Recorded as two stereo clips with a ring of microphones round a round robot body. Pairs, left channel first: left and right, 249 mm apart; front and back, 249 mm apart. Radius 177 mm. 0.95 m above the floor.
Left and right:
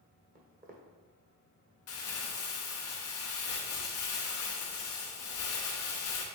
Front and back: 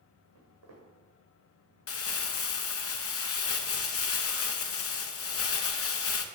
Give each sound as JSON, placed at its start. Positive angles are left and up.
{"t": 0.3, "sound": "footsteps", "azimuth_deg": -145, "distance_m": 2.0}
{"t": 1.9, "sound": "crumpling", "azimuth_deg": 40, "distance_m": 0.7}